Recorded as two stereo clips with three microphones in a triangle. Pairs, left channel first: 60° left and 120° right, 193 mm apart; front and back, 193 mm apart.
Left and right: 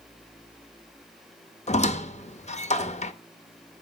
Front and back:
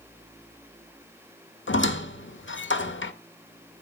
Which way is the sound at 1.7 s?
5° left.